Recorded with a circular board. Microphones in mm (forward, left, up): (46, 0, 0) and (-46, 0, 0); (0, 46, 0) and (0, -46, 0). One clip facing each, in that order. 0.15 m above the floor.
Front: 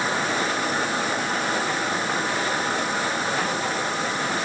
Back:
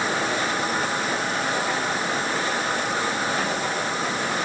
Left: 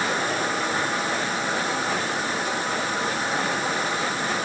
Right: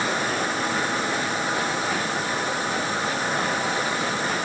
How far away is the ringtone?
I don't hear a ringtone.